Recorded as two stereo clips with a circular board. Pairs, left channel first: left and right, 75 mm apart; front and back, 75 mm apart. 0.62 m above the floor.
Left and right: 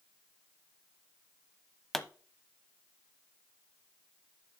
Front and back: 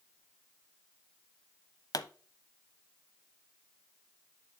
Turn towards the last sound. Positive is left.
turn(degrees=5)